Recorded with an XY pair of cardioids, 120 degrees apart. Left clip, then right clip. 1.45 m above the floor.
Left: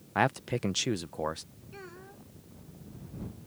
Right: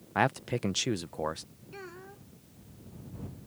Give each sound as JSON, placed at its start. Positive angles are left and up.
{"t": 0.1, "sound": "a man speaking", "azimuth_deg": 0}
{"t": 1.7, "sound": "a child speaking", "azimuth_deg": -15}